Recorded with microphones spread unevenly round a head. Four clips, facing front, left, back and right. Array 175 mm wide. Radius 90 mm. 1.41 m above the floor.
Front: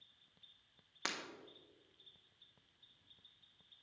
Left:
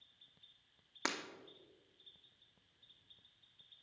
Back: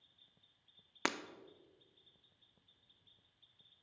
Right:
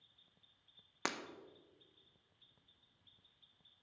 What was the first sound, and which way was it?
Breaking glass, 175° right.